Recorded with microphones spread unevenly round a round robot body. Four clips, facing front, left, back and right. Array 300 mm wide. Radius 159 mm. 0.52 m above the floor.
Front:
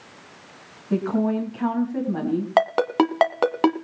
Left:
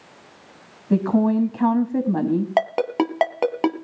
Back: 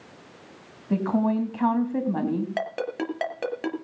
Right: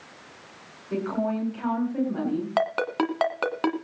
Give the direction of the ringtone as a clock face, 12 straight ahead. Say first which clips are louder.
Left 2 dB, front 10 dB; 11 o'clock.